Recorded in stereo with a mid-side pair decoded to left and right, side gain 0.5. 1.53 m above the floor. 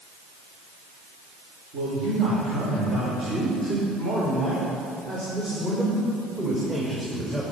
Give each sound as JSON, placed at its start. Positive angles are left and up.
{"t": 1.7, "sound": "a man speaking", "azimuth_deg": -65, "distance_m": 4.0}